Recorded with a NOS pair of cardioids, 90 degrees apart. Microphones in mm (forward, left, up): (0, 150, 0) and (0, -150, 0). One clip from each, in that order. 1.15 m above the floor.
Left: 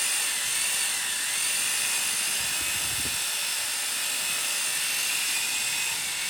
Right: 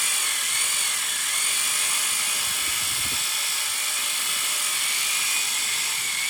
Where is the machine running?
25° right, 0.8 m.